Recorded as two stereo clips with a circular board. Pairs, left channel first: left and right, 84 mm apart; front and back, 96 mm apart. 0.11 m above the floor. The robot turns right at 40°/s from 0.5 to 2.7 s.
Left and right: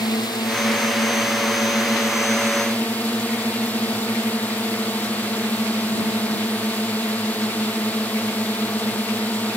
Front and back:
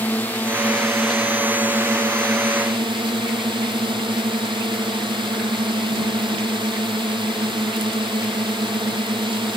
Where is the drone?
70° left; by 9.6 s 160° left.